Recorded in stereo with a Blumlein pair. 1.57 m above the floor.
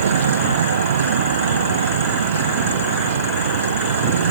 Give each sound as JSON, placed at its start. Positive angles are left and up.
{"t": 0.0, "sound": "a vehicle", "azimuth_deg": -65}